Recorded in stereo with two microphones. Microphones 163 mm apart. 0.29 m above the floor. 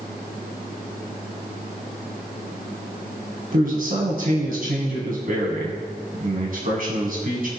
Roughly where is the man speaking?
Right.